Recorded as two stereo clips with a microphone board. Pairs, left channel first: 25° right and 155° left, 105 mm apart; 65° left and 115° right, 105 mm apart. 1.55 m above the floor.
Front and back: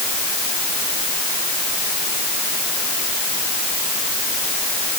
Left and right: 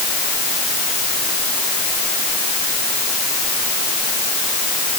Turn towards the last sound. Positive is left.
No sound to turn to.